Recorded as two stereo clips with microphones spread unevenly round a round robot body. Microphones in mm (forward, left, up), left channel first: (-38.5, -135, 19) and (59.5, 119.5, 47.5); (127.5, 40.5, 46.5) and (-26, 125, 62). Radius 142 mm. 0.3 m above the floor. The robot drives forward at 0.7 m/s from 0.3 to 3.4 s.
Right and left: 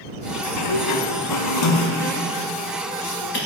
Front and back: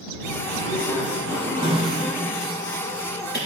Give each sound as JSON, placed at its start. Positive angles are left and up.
{"t": 0.4, "sound": "a sliding door", "azimuth_deg": -85, "distance_m": 0.8}